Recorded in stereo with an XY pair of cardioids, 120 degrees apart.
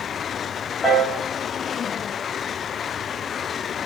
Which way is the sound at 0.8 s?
35° left.